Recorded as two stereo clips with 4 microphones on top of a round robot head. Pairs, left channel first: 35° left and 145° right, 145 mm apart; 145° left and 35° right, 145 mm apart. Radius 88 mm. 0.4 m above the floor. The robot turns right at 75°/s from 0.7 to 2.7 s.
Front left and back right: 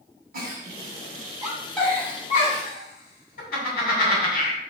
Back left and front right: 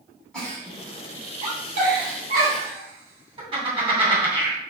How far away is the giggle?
About 3 m.